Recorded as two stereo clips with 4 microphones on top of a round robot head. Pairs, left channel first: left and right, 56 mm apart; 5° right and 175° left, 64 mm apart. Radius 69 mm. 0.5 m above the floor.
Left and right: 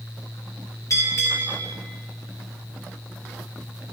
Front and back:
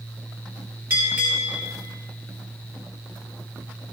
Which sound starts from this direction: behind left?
A bell, at 0.9 s.